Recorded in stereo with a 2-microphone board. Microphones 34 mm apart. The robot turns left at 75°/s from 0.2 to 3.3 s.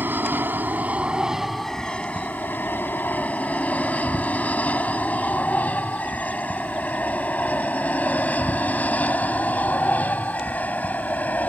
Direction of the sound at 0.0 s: 65° right (ahead or behind).